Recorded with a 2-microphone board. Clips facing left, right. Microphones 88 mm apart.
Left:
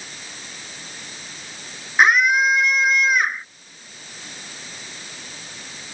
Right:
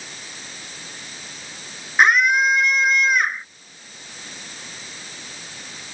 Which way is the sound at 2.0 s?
Centre (ahead or behind).